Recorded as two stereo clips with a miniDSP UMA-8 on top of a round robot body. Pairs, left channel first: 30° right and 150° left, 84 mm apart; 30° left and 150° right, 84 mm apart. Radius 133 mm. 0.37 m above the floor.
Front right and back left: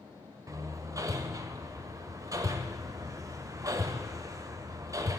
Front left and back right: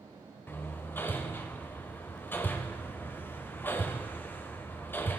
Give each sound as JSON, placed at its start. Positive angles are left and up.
{"t": 0.5, "sound": "hammering", "azimuth_deg": 100, "distance_m": 0.7}